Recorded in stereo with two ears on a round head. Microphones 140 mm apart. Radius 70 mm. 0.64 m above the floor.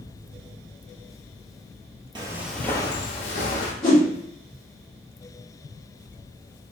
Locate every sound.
2.1 s footsteps: 30° right (ahead or behind), 0.7 m; by 3.7 s 55° left (ahead or behind), 1.5 m
3.8 s a whoosh: 10° left (ahead or behind), 1.8 m